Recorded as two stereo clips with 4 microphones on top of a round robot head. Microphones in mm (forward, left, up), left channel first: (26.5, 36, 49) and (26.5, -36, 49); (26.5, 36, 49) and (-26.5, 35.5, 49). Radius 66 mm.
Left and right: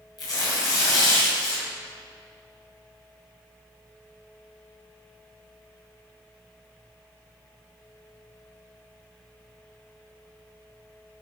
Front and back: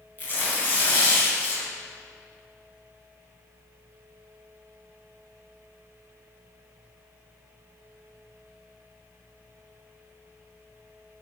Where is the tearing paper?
55° left, 4 m.